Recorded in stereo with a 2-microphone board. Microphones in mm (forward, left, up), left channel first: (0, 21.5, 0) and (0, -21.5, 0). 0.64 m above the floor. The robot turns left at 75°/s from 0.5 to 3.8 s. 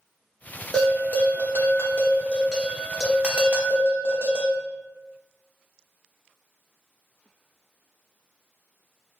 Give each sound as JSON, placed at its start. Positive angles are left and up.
{"t": 0.7, "sound": "a bell", "azimuth_deg": 150, "distance_m": 0.7}